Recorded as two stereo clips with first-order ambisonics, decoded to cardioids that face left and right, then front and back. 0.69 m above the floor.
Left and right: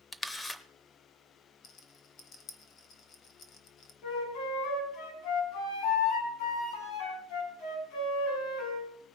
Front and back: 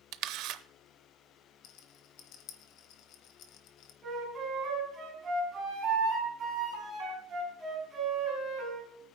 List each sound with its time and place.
0.1 s a camera shutter: 170° left, 0.5 m
1.6 s a rattle: 35° left, 1.1 m
4.0 s a flute: 115° left, 3 m